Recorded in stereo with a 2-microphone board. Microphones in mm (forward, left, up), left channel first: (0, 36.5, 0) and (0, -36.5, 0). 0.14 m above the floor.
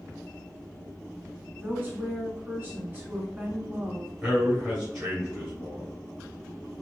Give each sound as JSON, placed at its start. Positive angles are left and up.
{"t": 1.6, "sound": "a woman speaking", "side_deg": -25, "distance_m": 1.2}
{"t": 4.2, "sound": "a man speaking", "side_deg": -15, "distance_m": 1.9}